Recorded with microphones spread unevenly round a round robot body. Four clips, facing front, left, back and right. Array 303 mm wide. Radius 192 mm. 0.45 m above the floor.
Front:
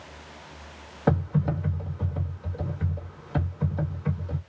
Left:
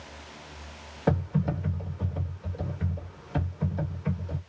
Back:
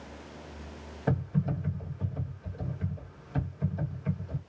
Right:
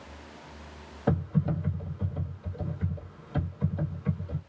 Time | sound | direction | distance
1.1 | typing on a keyboard | 30° left | 1.7 m